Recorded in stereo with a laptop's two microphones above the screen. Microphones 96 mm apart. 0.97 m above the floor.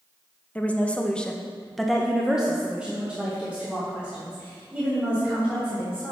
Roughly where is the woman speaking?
Centre.